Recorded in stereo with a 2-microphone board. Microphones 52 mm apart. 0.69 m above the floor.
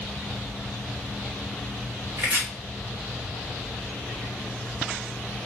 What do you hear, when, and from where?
2.2 s chopping: 55° right (ahead or behind), 2 m